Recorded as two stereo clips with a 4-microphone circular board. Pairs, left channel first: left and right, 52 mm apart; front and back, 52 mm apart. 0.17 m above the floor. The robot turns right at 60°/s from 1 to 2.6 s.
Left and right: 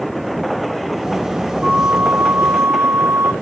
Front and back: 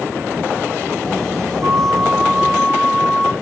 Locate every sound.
1.6 s a flute: 150° right, 0.5 m; by 3.3 s 90° right, 0.5 m